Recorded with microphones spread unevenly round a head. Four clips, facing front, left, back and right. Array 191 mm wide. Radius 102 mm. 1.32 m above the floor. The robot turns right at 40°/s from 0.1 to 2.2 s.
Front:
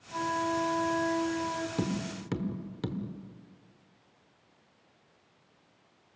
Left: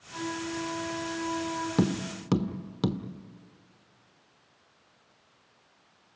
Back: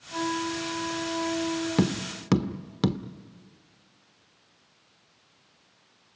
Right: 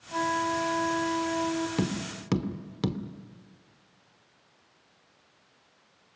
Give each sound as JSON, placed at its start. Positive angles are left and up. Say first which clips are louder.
{"t": 0.1, "sound": "a flute", "louder": "right 7 dB, back 1 dB", "azimuth_deg": -110, "distance_m": 4.5}
{"t": 1.8, "sound": "tapping", "louder": "left 3 dB, back 6 dB", "azimuth_deg": 145, "distance_m": 1.1}